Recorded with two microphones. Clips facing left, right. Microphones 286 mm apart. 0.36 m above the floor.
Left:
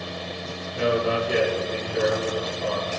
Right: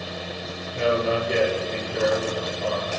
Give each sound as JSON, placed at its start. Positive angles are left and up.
{"t": 0.7, "sound": "a man speaking", "side_deg": 5, "distance_m": 6.0}